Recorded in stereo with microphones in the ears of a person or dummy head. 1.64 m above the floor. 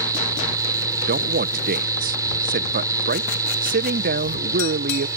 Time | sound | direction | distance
0.0 | a fan | 15° right (ahead or behind) | ?
1.1 | a man speaking | 50° right (ahead or behind) | ?